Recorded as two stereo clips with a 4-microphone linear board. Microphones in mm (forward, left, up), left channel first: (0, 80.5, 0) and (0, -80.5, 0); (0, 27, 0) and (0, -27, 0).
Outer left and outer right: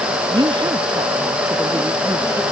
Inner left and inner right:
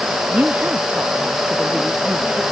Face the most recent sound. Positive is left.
turn(degrees=-20)  # may be behind; listen again after turning